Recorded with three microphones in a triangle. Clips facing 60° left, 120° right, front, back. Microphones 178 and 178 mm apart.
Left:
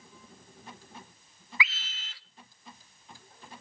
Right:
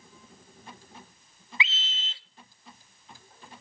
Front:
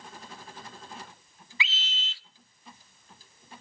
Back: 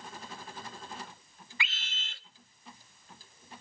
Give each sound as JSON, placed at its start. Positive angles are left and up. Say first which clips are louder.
{"t": 1.6, "sound": "a scream", "louder": "even, front 4 dB", "azimuth_deg": -175, "distance_m": 1.1}